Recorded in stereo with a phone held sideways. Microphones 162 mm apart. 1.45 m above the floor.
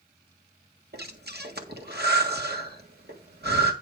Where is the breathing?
70° right (ahead or behind), 1.6 m.